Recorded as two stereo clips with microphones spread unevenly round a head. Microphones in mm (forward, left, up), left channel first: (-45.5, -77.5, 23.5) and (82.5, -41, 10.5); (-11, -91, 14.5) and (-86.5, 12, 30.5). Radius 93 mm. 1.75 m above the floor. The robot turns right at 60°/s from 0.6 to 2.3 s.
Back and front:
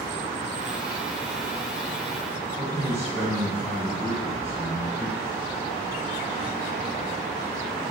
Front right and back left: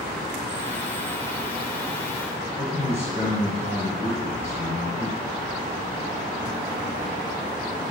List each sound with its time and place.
2.6 s a man speaking: 95° right, 2 m